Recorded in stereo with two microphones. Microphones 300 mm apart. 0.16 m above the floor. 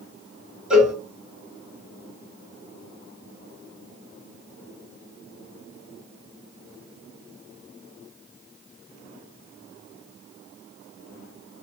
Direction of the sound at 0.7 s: 5° right (ahead or behind).